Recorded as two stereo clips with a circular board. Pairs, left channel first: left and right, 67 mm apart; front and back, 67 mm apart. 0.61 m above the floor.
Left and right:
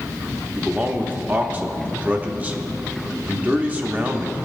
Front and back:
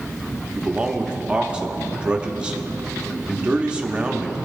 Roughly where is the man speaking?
Behind right.